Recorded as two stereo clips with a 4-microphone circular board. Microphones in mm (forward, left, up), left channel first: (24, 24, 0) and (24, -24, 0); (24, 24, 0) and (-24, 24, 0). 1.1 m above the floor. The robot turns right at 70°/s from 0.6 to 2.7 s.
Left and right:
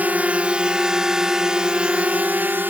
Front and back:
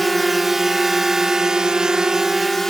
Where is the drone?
90° right; by 2.7 s 80° right.